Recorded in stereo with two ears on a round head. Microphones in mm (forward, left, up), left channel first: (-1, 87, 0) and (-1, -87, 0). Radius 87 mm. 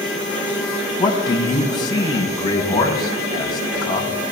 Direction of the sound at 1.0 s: 25° left (ahead or behind).